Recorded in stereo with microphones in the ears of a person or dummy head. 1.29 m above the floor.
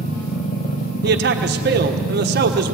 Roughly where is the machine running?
Left.